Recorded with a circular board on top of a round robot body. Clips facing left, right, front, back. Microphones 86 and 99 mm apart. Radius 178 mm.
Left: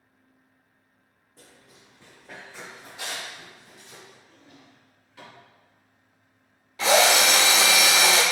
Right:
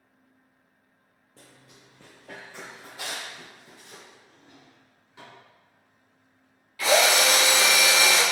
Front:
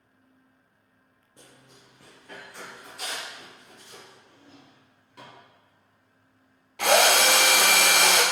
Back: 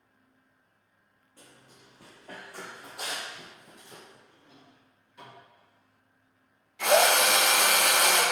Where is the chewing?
I don't hear chewing.